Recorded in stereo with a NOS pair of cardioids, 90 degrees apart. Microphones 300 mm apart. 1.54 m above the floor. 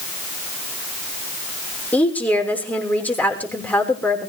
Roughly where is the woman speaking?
Ahead.